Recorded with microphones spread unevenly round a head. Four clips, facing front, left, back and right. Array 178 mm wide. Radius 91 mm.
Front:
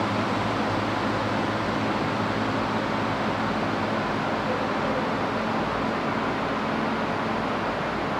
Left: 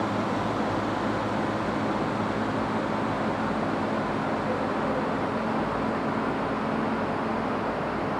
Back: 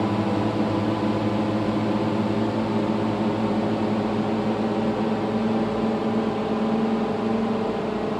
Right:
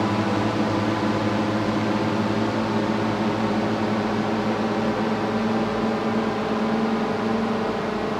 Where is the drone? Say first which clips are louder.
Right 5 dB, back 3 dB; 135° right; by 8.2 s 140° right.